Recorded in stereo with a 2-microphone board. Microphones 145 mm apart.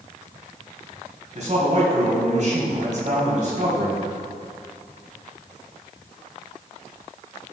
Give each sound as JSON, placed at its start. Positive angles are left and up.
{"t": 1.4, "sound": "a man speaking", "side_deg": -50, "distance_m": 4.0}